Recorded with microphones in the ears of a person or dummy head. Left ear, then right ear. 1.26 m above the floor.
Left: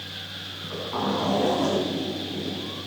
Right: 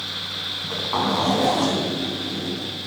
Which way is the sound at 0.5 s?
80° right.